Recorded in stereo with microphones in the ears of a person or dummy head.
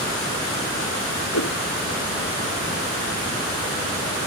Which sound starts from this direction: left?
A whoosh, at 1.3 s.